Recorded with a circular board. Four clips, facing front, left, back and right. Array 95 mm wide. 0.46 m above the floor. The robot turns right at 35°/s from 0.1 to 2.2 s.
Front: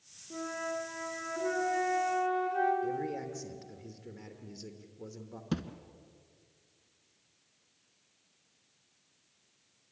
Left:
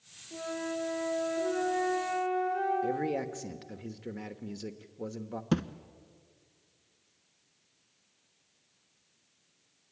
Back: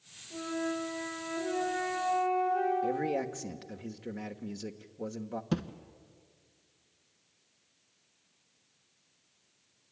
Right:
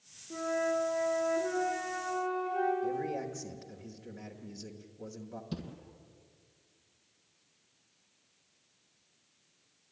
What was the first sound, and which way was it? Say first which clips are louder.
A flute: right 5 dB, back 3 dB; 60° right.